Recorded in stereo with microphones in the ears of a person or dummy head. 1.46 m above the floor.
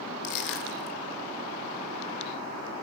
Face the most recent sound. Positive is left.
turn(degrees=65)  # may be behind; listen again after turning